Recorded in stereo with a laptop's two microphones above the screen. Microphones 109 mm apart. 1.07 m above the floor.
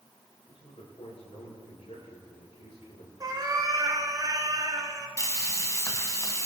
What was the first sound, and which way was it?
A man speaking, 80° left.